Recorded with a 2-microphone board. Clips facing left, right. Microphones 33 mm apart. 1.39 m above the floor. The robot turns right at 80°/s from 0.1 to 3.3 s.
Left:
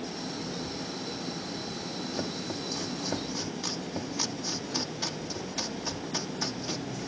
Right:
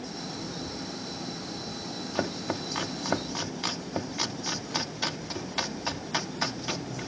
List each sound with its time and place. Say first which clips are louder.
2.1 s chopping: right 7 dB; 45° right (ahead or behind); by 7.1 s 40° right (ahead or behind)